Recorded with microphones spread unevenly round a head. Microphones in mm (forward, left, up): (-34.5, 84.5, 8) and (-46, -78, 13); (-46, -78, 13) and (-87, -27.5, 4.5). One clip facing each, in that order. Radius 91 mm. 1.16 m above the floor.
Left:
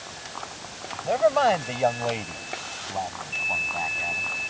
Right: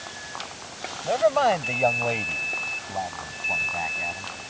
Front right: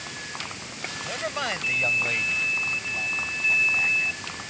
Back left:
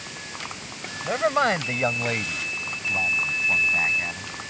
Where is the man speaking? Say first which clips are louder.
Even, back left 9 dB; 175° left; by 4.3 s straight behind.